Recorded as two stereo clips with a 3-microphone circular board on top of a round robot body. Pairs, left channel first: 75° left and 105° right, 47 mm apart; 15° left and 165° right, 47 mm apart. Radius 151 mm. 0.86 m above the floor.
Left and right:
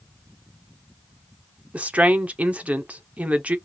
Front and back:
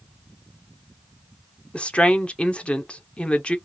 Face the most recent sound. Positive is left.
turn(degrees=-50)